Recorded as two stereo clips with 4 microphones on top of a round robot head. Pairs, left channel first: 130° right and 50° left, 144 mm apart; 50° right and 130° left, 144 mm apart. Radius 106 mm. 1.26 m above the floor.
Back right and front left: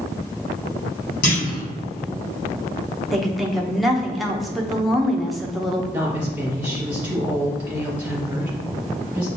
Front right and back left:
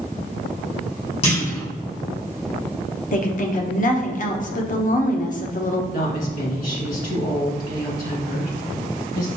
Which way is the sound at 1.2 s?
100° right.